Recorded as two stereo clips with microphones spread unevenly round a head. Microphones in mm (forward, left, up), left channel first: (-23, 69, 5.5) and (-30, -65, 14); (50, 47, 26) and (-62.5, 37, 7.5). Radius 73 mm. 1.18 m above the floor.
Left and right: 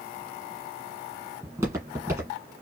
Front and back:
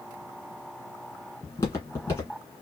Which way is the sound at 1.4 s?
40° right.